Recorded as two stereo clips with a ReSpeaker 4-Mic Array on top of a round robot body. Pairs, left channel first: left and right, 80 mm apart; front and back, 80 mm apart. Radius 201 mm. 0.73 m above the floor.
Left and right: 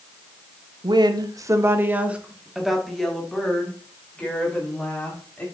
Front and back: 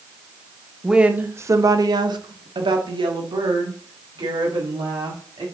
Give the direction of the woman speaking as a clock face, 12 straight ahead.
3 o'clock.